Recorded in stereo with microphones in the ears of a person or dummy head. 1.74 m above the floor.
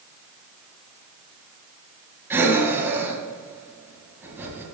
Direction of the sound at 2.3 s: 15° right (ahead or behind).